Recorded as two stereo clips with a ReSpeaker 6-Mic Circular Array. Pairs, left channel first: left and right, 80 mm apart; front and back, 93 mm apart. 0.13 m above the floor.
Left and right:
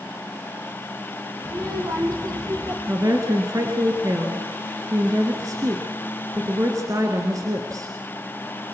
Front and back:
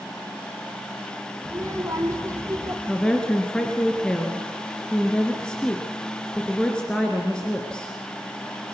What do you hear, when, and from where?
1.4 s a child speaking: 125° right, 4.5 m
2.9 s a woman speaking: 80° right, 2 m